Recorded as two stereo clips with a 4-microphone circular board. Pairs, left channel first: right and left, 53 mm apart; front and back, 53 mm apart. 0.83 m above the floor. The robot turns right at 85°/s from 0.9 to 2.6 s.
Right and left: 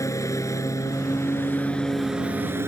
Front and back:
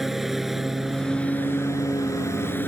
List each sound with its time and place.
0.0 s a lawn mower: 95° right; by 2.7 s 50° left